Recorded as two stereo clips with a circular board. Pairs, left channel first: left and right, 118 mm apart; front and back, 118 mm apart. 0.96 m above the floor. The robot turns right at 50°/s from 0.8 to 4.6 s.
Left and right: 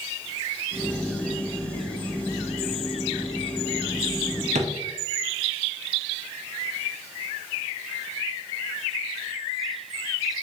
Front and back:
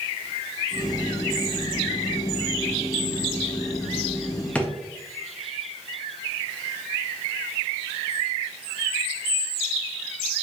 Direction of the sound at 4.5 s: 80° right.